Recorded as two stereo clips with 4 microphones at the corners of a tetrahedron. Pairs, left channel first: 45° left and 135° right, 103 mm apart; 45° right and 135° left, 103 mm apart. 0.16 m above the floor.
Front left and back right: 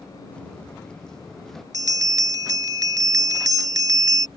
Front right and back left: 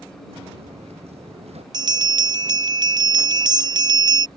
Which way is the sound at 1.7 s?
175° left.